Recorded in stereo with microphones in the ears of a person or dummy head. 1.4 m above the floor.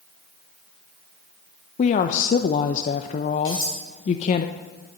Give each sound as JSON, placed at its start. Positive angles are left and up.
{"t": 1.8, "sound": "a woman speaking", "side_deg": 50, "distance_m": 0.7}
{"t": 3.5, "sound": "cutlery clinking", "side_deg": 30, "distance_m": 7.0}